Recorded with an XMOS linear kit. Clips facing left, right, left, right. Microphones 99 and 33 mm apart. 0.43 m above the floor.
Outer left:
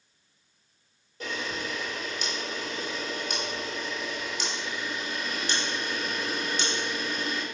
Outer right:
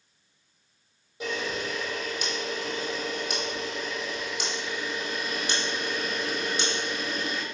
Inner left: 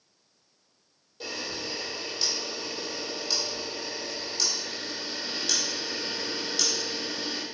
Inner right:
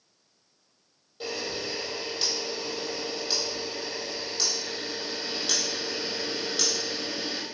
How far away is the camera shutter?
About 2 m.